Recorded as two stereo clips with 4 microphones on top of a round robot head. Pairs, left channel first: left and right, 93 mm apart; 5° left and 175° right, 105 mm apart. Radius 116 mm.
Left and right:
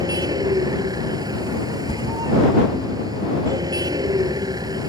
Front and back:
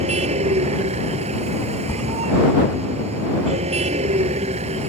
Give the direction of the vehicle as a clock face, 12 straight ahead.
5 o'clock.